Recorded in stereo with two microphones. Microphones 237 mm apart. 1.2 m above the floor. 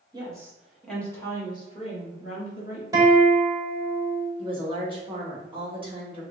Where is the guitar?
15° right (ahead or behind), 1.0 m.